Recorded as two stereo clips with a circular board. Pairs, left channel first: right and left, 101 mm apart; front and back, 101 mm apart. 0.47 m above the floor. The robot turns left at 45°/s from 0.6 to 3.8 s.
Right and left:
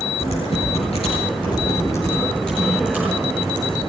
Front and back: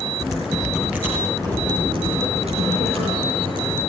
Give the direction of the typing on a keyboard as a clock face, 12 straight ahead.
3 o'clock.